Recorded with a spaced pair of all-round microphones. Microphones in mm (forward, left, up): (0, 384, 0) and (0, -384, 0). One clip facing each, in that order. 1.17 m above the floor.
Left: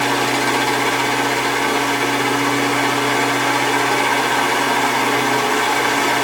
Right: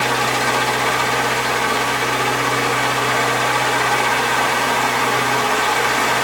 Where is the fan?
20° right (ahead or behind), 1.9 m.